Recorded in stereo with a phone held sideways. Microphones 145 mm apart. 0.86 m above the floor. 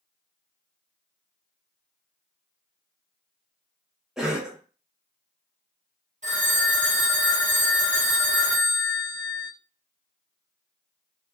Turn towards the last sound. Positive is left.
turn(degrees=-55)  # may be behind; listen again after turning